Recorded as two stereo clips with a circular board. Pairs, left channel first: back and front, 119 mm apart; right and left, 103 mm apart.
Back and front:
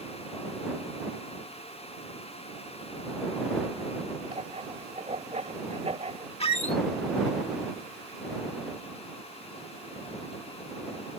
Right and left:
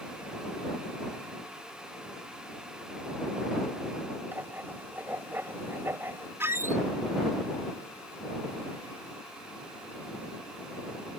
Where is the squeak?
155° left.